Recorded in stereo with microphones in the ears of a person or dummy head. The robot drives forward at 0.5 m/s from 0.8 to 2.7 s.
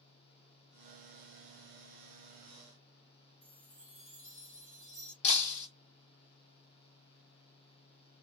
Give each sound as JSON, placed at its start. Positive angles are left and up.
{"t": 3.4, "sound": "a chime", "side_deg": 45, "distance_m": 0.7}
{"t": 5.2, "sound": "breaking glass", "side_deg": 45, "distance_m": 0.7}